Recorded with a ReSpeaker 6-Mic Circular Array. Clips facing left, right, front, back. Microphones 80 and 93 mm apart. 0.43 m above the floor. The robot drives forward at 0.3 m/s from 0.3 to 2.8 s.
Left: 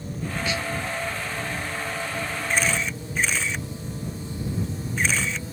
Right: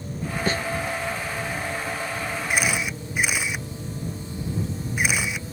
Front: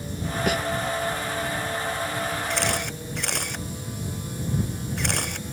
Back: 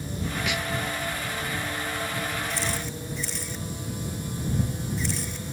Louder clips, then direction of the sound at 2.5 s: Even, front 4 dB; 10° right.